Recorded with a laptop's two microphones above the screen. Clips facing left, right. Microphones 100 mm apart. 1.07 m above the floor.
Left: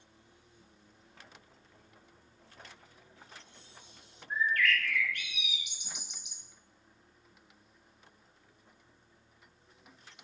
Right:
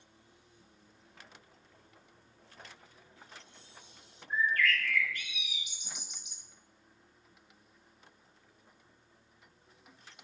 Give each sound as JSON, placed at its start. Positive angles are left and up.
{"t": 4.3, "sound": "a bird", "side_deg": 65, "distance_m": 1.4}